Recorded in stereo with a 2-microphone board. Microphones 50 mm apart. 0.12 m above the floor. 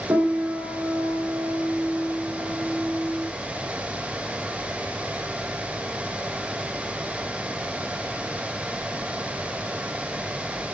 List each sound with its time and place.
0.1 s a piano: 60° right (ahead or behind), 5 m